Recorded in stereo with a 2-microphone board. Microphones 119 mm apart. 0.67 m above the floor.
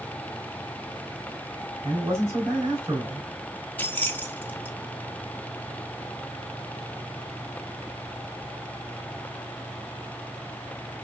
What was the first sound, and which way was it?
A man speaking, 25° right (ahead or behind).